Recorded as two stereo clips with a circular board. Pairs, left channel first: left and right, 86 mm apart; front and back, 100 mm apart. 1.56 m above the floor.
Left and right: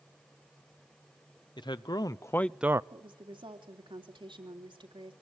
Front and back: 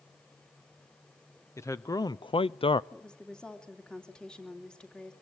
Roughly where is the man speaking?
Ahead left.